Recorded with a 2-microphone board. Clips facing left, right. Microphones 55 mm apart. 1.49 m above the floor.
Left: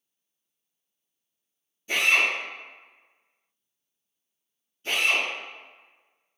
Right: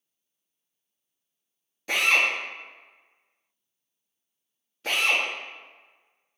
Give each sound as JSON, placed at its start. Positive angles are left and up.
{"t": 1.9, "sound": "a drill", "side_deg": -80, "distance_m": 0.9}